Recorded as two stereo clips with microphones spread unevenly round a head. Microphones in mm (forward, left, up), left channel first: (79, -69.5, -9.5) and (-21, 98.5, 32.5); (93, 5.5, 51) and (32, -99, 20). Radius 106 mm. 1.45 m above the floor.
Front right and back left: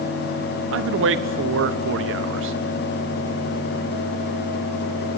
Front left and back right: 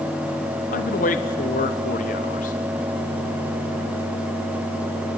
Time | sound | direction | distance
0.7 | a man speaking | 95° left | 1.1 m